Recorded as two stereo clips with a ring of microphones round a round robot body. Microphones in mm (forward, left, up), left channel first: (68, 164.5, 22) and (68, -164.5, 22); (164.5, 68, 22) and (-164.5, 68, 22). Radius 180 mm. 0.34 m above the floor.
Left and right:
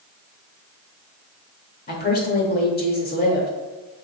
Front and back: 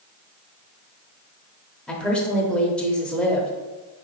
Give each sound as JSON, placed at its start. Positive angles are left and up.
{"t": 1.9, "sound": "a woman speaking", "azimuth_deg": 85, "distance_m": 0.9}